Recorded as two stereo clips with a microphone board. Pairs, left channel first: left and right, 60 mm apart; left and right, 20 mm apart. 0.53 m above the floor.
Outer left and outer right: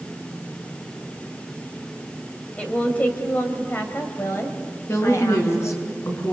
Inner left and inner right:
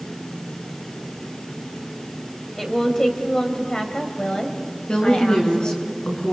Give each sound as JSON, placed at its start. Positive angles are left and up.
{"t": 2.6, "sound": "a woman speaking", "side_deg": 20, "distance_m": 3.0}
{"t": 4.9, "sound": "a woman speaking", "side_deg": 50, "distance_m": 5.5}